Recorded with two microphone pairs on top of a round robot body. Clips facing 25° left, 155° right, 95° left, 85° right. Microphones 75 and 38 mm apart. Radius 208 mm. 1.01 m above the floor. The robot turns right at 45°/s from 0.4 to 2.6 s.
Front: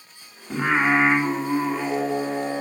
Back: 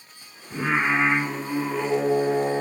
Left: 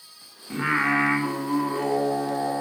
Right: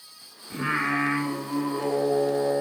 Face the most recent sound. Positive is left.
turn(degrees=140)